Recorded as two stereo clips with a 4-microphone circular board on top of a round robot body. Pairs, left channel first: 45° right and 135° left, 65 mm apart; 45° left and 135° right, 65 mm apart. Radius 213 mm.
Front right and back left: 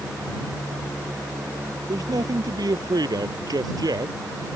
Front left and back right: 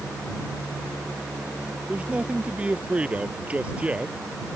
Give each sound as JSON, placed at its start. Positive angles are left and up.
{"t": 1.9, "sound": "a man speaking", "azimuth_deg": 155}